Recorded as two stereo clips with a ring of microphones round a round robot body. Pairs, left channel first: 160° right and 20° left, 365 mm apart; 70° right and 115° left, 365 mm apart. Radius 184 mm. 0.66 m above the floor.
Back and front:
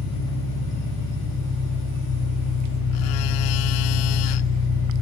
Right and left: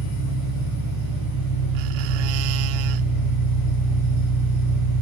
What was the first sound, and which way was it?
An engine running, 155° left.